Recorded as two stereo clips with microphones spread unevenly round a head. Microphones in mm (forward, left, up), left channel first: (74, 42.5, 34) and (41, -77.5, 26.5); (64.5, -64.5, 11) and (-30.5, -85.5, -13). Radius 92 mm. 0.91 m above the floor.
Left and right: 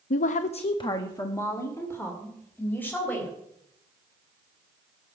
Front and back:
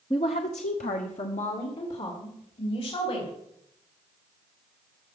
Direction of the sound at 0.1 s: 90° left.